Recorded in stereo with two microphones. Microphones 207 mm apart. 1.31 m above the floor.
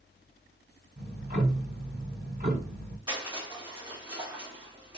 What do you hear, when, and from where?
1.0 s ticking: 50° right (ahead or behind), 1.8 m
3.1 s crushing: 25° right (ahead or behind), 2.5 m